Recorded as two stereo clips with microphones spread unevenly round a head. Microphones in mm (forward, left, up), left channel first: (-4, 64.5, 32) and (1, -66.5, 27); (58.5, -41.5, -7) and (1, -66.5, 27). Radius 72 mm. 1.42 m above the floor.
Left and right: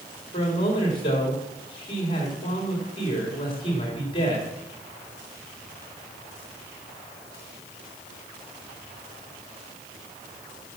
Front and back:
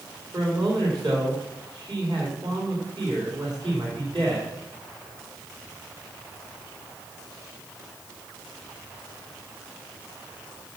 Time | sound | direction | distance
0.3 | a man speaking | 145° left | 3.5 m